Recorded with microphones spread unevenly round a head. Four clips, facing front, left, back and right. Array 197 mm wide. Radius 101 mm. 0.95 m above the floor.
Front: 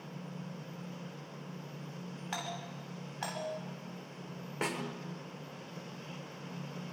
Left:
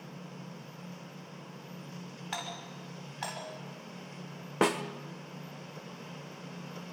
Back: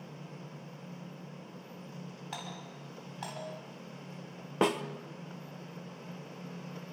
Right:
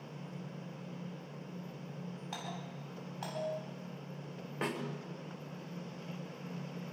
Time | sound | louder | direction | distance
2.3 | a doorbell | left 5 dB, front 4 dB | 45° left | 10 m
4.6 | a snare drum | left 10 dB, back 8 dB | 135° left | 1.4 m